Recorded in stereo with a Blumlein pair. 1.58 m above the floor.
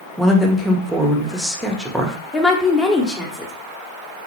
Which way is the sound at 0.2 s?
Straight ahead.